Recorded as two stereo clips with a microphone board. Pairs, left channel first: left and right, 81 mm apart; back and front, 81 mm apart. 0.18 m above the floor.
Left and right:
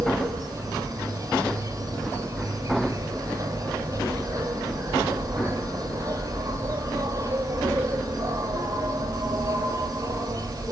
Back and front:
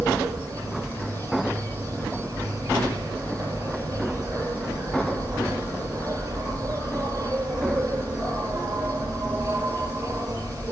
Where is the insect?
45° right, 6.5 m.